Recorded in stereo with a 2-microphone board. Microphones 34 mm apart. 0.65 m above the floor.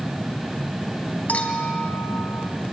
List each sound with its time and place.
1.3 s a clink: 45° left (ahead or behind), 3 m